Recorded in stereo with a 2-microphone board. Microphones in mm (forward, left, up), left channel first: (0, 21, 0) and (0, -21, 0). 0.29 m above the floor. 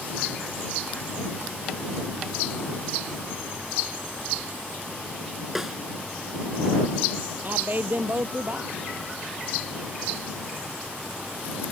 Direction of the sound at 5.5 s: 10° right (ahead or behind).